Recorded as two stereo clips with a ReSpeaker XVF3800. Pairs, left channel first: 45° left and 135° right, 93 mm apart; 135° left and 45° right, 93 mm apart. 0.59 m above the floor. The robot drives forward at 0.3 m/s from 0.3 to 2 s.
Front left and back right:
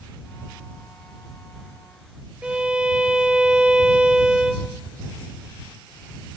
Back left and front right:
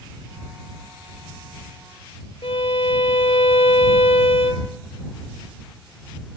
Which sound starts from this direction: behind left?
A violin, at 2.4 s.